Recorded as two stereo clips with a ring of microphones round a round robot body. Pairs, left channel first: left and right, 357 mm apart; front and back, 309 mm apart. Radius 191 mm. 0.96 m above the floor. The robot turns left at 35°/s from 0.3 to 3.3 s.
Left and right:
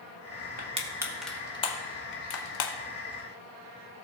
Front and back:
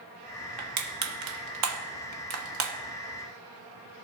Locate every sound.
0.6 s crushing: 155° right, 1.2 m; by 2.7 s 130° left, 1.2 m